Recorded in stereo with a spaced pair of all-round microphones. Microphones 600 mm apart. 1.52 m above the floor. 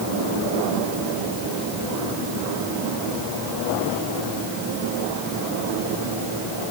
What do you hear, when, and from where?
Only background noise.